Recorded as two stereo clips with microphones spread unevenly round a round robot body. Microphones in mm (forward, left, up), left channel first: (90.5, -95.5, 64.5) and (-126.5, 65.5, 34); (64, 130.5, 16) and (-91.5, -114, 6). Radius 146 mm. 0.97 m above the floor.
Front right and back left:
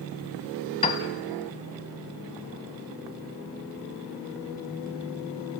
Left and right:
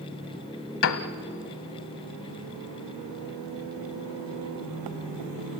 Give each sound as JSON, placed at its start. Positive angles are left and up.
{"t": 0.8, "sound": "a piano", "azimuth_deg": 30, "distance_m": 1.2}